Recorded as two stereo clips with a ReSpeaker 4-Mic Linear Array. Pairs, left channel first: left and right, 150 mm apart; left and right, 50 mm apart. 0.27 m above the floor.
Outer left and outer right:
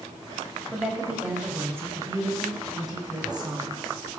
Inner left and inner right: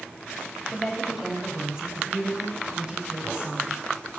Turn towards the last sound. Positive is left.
turn(degrees=-30)  # may be behind; listen again after turning